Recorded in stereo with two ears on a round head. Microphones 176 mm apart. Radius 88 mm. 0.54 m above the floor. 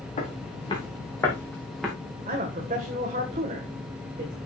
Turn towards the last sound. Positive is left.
turn(degrees=-35)  # may be behind; listen again after turning